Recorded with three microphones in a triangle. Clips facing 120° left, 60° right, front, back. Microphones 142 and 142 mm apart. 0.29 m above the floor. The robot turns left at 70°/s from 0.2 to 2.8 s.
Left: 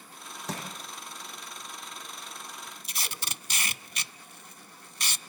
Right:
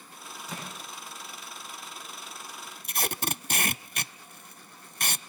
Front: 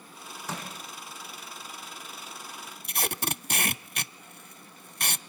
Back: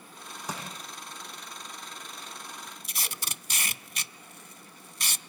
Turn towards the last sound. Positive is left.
turn(degrees=-30)